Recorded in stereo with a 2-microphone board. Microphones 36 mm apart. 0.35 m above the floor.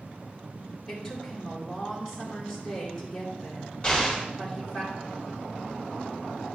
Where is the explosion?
20° left (ahead or behind), 3.5 m.